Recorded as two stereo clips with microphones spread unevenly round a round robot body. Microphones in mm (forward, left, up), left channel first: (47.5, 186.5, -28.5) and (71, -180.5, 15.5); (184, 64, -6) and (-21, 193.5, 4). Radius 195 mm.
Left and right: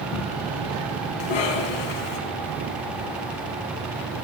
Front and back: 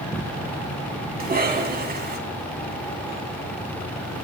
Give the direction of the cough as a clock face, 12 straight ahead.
9 o'clock.